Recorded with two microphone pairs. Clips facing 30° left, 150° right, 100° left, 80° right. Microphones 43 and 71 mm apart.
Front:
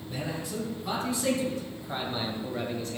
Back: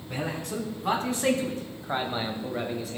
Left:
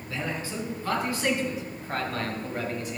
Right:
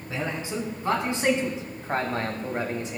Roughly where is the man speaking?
Behind right.